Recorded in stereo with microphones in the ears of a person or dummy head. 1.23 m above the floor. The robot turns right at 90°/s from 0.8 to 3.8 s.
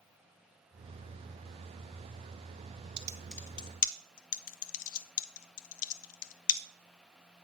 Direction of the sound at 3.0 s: 30° right (ahead or behind).